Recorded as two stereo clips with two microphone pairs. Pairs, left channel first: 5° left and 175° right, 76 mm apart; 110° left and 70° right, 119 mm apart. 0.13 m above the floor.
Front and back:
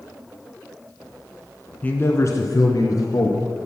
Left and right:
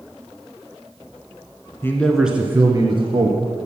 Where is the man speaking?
60° left, 1.2 m; by 3.5 s 30° right, 2.5 m.